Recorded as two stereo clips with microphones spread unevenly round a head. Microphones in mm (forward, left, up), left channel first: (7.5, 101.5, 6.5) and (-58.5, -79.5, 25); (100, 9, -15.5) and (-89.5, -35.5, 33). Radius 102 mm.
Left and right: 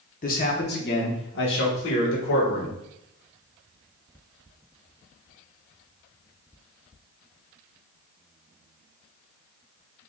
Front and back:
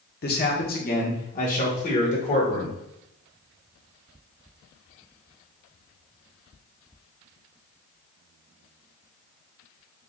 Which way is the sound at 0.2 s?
30° left.